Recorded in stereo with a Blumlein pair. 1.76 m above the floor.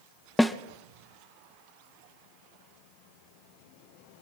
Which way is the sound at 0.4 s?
Straight ahead.